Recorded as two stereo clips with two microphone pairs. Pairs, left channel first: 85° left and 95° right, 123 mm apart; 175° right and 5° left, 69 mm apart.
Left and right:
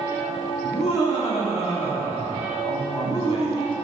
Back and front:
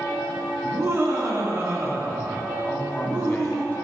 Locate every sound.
0.6 s laughter: 55° left, 3 m
2.6 s a man speaking: 120° left, 2 m